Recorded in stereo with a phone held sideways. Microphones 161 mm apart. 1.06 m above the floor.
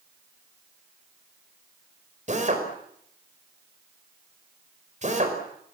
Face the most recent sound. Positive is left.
turn(degrees=-50)  # may be behind; listen again after turning